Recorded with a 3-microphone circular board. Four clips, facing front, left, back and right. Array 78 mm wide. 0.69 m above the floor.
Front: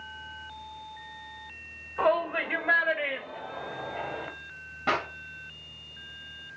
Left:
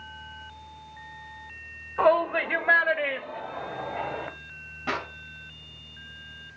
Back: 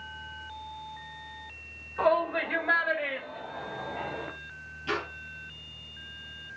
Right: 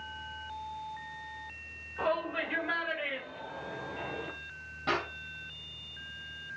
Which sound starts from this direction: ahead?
A clap, at 4.9 s.